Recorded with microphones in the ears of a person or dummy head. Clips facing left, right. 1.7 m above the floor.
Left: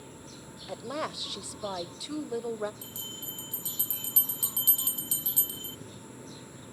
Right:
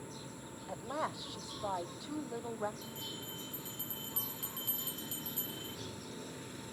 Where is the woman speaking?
45° left (ahead or behind), 0.9 m.